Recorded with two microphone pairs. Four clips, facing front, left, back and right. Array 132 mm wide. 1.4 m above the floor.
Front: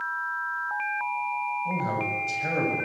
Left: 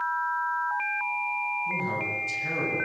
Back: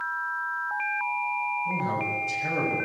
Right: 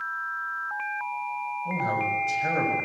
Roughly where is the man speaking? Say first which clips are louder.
Right 4 dB, even; right.